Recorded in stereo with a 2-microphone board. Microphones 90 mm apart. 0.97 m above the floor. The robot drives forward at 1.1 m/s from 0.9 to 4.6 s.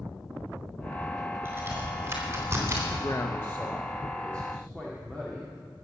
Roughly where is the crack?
Right.